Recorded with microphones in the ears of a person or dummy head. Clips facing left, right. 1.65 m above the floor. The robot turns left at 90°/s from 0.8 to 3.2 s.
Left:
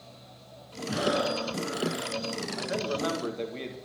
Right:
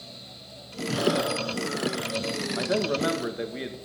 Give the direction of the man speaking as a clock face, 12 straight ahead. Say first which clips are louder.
Right 6 dB; 4 o'clock.